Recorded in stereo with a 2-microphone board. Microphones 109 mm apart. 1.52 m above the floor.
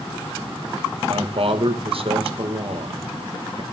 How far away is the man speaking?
About 2 m.